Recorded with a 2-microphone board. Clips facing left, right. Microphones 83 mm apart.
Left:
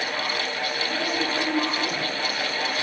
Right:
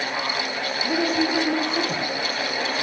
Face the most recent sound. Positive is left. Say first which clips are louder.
# right 7 dB
turn(degrees=-65)  # may be behind; listen again after turning